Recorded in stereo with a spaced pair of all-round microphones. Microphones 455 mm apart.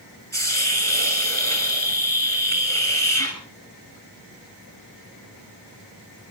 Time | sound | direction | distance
0.3 | a hiss | 30° right (ahead or behind) | 6.5 m